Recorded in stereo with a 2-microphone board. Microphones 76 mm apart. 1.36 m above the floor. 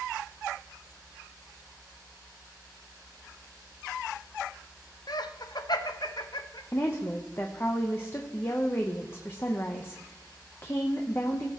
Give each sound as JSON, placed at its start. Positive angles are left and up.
{"t": 5.1, "sound": "laughter", "side_deg": 65, "distance_m": 0.7}
{"t": 6.7, "sound": "a woman speaking", "side_deg": 30, "distance_m": 0.9}